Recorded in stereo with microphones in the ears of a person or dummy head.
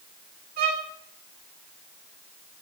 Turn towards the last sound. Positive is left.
turn(degrees=-50)  # may be behind; listen again after turning